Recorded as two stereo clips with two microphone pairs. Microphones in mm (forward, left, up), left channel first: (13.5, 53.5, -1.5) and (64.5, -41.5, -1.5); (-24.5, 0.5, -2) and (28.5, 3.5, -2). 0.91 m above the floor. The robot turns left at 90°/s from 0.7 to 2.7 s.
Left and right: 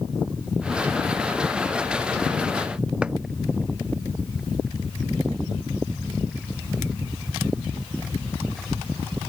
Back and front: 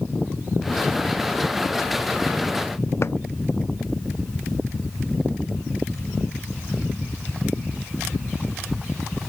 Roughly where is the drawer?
Behind right.